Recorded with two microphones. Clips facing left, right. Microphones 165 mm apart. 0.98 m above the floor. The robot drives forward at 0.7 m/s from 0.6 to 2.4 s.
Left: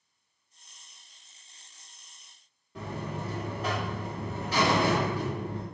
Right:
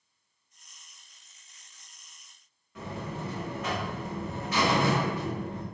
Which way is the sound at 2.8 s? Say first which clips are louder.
Left 1 dB; 30° left (ahead or behind).